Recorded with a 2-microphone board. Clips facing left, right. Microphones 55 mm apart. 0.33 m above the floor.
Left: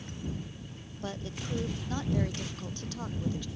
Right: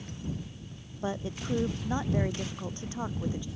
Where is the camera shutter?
No camera shutter in this recording.